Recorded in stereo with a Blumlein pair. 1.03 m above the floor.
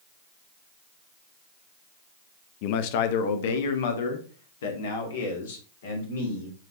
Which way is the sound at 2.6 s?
45° left.